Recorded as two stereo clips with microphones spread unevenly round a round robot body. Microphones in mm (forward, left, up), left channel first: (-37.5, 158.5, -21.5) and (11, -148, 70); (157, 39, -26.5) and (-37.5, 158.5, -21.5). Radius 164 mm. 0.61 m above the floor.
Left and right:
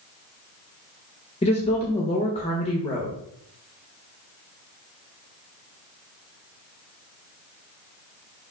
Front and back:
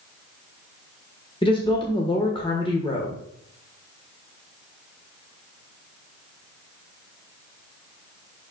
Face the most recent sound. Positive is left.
turn(degrees=35)